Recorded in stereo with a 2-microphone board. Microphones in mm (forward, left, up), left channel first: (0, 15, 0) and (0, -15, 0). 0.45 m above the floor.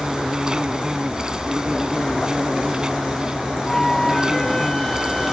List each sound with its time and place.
0.0 s an insect: 25° right (ahead or behind)
3.7 s a flute: 15° left (ahead or behind)